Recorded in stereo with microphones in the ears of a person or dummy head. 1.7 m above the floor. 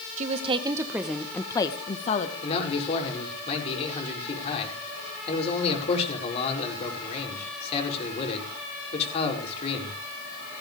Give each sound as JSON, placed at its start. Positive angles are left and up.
{"t": 0.2, "sound": "a woman speaking", "side_deg": -45, "distance_m": 1.2}
{"t": 2.4, "sound": "a man speaking", "side_deg": 35, "distance_m": 5.0}